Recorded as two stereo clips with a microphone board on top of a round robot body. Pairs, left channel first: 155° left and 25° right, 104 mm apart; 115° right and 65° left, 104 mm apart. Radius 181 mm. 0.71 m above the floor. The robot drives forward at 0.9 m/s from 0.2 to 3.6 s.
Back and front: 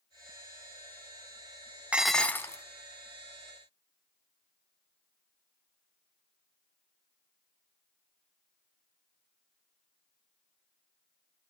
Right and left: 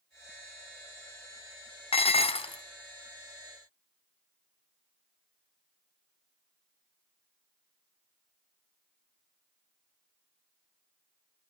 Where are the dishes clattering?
100° right, 0.7 m; by 2.6 s 145° right, 1.0 m.